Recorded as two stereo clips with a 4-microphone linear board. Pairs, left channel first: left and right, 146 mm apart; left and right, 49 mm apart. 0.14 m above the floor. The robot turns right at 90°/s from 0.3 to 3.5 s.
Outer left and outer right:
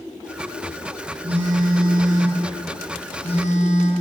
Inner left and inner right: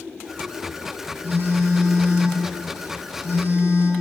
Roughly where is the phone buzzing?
Behind right.